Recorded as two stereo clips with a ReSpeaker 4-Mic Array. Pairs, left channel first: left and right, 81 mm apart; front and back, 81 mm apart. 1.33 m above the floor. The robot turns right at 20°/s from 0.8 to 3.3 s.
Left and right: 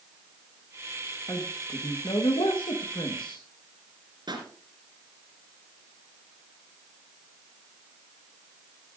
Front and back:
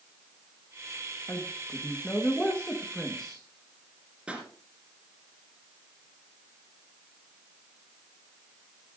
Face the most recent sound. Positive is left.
turn(degrees=-105)